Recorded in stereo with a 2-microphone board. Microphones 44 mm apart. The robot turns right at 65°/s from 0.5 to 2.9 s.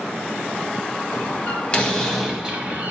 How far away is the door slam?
About 1.8 m.